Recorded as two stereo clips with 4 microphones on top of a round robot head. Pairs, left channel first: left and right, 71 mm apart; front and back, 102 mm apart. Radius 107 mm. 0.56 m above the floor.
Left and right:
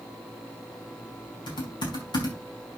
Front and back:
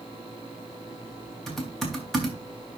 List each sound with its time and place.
1.5 s typing on a keyboard: 90° left, 4.5 m